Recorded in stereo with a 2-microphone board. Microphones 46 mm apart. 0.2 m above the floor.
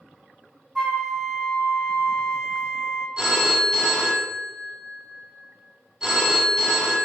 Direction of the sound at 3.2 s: 15° right (ahead or behind).